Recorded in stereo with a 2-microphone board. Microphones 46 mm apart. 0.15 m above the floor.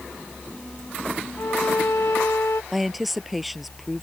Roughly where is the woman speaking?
Centre.